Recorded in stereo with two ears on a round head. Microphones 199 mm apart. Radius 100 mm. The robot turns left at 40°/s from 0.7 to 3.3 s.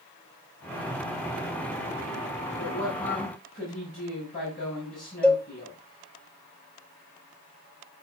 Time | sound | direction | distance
2.6 | a woman speaking | 65° left (ahead or behind) | 5 m
5.2 | a cowbell | 5° left (ahead or behind) | 0.9 m